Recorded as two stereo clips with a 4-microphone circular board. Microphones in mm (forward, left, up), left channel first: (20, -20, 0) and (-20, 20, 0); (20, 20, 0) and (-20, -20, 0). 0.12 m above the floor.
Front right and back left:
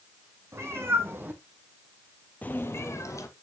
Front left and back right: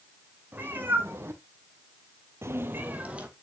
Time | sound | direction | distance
0.5 | a cat meowing | 170° left | 2.5 m